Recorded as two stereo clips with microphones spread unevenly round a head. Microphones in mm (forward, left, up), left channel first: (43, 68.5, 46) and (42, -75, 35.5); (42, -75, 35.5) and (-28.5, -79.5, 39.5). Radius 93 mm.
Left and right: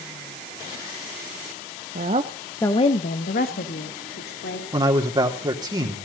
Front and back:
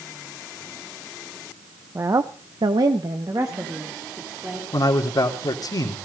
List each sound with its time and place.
1.9 s a woman speaking: 125° right, 1.1 m; by 4.6 s 110° left, 3.5 m
4.7 s a man speaking: 30° right, 3 m